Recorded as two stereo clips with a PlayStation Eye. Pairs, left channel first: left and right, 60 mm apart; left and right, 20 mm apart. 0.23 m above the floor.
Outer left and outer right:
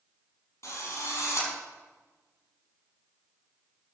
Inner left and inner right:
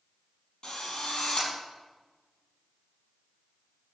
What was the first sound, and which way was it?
A drill, 55° left (ahead or behind).